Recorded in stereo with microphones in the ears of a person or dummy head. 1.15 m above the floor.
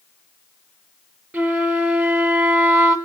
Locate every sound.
1.3 s a flute: 10° right (ahead or behind), 1.0 m